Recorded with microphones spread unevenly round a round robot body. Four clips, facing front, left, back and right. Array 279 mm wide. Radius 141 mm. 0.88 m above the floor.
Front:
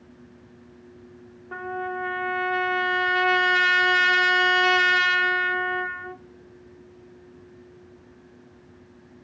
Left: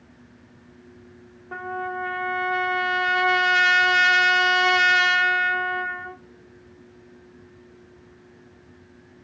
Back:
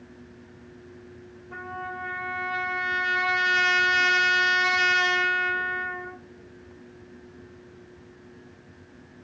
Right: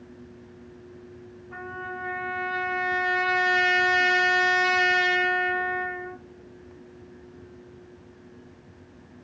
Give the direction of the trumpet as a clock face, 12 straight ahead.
10 o'clock.